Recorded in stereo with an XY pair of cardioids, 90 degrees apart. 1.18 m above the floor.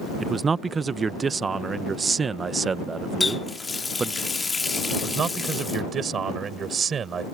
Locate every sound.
0.2 s a man speaking: 40° right
3.2 s a running tap: 30° left
4.9 s a man speaking: 55° right